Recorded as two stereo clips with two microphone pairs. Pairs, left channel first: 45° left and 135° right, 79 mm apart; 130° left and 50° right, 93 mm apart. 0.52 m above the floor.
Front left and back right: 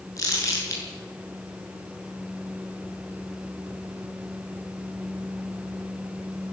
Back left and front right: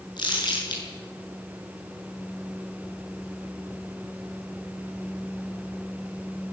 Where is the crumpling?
90° left, 7.5 m.